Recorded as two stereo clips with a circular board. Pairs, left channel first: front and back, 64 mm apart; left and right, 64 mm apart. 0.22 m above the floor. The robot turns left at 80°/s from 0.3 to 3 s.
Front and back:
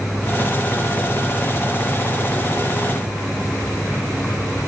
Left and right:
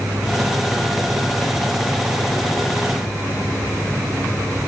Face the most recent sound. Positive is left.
No sound to turn to.